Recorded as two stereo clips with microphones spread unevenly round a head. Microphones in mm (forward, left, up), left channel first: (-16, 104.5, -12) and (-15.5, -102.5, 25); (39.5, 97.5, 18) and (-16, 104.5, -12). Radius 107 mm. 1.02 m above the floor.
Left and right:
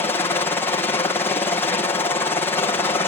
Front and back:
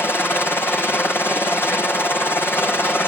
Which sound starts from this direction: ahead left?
A helicopter, at 0.0 s.